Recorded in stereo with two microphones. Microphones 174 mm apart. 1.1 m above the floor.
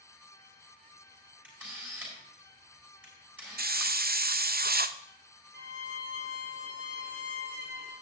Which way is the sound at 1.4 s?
10° right (ahead or behind).